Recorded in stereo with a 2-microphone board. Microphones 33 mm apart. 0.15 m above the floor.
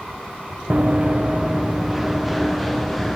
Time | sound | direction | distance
0.7 | running footsteps | 35° right (ahead or behind) | 0.7 m